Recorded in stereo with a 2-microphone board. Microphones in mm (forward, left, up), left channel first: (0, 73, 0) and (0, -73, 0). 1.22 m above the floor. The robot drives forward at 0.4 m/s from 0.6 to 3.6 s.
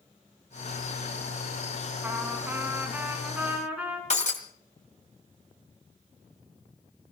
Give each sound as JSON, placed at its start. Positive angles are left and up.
{"t": 2.0, "sound": "a trumpet", "side_deg": -15, "distance_m": 2.5}
{"t": 4.1, "sound": "breaking glass", "side_deg": 55, "distance_m": 2.0}